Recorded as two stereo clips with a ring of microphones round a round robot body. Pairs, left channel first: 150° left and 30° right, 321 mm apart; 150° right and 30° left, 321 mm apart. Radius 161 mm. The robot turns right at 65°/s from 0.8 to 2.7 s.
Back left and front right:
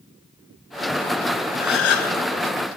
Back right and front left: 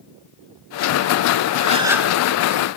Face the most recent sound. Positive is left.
turn(degrees=165)